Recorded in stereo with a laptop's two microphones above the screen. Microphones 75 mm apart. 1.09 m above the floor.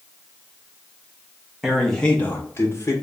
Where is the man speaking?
5° right (ahead or behind), 0.7 m; by 2.9 s 45° left (ahead or behind), 1.0 m.